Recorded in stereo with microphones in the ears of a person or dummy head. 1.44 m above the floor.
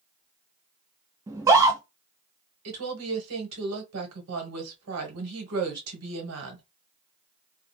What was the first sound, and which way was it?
A scream, 15° right (ahead or behind).